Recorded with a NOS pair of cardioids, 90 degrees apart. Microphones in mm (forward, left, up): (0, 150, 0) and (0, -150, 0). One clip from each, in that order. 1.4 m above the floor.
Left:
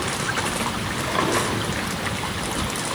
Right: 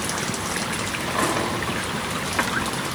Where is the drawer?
20° left, 4 m.